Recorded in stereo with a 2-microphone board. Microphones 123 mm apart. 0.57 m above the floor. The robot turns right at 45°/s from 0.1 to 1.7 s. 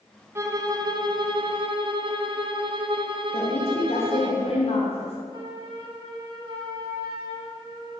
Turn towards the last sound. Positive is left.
turn(degrees=-40)  # may be behind; listen again after turning